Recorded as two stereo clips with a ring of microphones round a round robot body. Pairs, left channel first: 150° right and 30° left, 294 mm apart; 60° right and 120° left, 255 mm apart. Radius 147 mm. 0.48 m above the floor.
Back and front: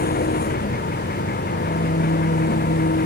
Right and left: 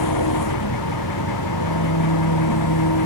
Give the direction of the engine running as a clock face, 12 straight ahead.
3 o'clock.